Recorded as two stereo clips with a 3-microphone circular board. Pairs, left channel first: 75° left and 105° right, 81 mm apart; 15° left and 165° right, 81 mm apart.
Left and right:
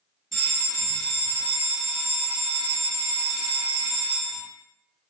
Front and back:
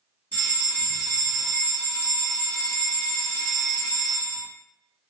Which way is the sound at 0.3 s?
10° right.